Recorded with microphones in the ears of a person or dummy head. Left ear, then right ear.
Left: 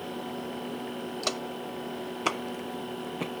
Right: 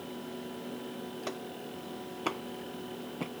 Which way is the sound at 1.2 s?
40° left (ahead or behind).